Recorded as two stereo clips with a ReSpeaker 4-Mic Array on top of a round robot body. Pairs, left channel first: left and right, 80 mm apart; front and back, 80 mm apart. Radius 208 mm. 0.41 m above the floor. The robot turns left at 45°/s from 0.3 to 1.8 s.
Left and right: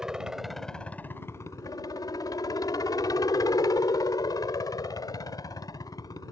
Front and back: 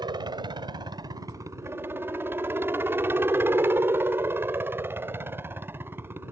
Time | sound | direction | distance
0.0 | a helicopter | 170° right | ?